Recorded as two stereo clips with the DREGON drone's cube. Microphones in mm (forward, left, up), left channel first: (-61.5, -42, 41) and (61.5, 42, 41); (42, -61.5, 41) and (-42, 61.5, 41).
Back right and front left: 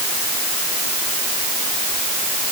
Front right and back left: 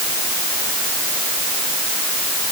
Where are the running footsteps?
No running footsteps in this recording.